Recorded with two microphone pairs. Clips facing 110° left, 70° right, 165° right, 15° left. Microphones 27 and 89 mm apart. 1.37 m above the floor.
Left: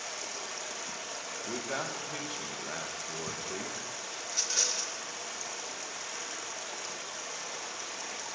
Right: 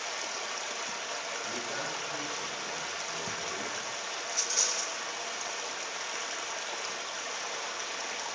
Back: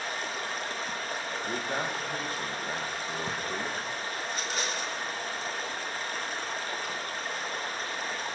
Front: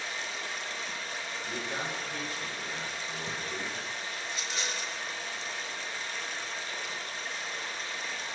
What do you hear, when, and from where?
0.0 s running water: 130° right, 0.9 m
1.5 s a man speaking: 155° left, 1.7 m
4.2 s a rattle: 170° right, 1.0 m